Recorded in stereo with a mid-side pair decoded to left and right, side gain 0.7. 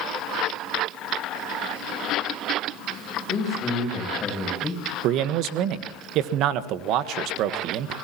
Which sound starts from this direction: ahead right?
A man speaking, at 5.0 s.